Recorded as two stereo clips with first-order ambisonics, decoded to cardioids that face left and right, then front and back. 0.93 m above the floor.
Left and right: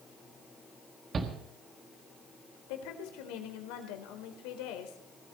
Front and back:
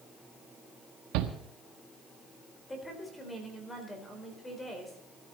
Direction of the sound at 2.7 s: 80° left.